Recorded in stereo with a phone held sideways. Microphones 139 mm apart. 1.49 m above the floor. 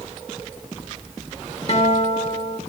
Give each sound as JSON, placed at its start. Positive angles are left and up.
{"t": 1.7, "sound": "a guitar", "side_deg": 45, "distance_m": 1.3}